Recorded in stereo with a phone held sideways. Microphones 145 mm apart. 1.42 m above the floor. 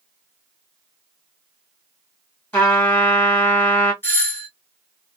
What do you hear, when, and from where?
2.5 s a trumpet: 10° left (ahead or behind), 2 m
4.0 s a doorbell: 15° left (ahead or behind), 1.3 m